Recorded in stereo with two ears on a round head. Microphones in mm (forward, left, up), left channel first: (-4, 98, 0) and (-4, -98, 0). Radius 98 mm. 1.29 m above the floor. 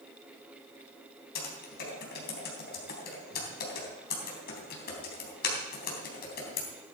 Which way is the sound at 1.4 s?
45° left (ahead or behind).